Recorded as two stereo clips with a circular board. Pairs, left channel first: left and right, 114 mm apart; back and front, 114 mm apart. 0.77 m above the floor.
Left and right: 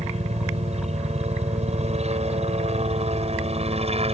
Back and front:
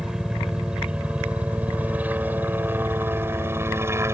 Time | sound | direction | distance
0.0 | a helicopter | 85° right | ?